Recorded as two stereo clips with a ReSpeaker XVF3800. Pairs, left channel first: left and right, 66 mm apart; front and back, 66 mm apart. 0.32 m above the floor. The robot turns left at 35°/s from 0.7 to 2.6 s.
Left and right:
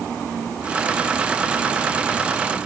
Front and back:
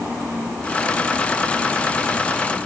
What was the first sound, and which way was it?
Only background noise.